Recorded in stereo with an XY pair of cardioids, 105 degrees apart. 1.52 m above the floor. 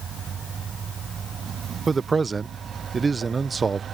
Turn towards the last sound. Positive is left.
turn(degrees=-30)